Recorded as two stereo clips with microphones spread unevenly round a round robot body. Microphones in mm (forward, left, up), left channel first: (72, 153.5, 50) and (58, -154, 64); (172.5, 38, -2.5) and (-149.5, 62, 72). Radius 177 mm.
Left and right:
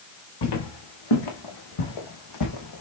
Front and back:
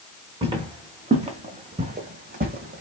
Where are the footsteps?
105° left, 2.5 m; by 2.8 s 125° left, 1.2 m.